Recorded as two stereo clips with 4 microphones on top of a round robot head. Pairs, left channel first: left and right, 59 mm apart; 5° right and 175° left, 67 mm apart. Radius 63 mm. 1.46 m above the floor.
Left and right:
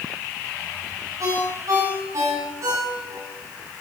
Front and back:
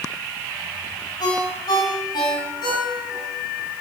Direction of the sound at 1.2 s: 40° right.